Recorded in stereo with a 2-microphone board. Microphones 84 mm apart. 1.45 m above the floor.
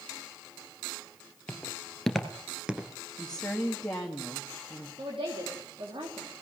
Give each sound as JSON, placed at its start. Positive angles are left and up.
{"t": 1.5, "sound": "footsteps", "side_deg": 15, "distance_m": 2.0}
{"t": 3.2, "sound": "a woman speaking", "side_deg": 10, "distance_m": 1.9}
{"t": 5.0, "sound": "a woman speaking", "side_deg": -85, "distance_m": 3.5}